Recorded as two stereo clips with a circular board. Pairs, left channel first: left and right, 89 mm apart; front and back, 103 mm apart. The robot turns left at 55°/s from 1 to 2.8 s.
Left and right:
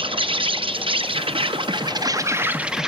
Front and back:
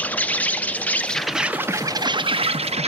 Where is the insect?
75° right, 0.7 m; by 2.9 s 175° right, 0.7 m.